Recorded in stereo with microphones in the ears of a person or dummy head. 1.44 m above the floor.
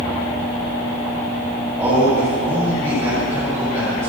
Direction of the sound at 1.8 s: 15° right (ahead or behind).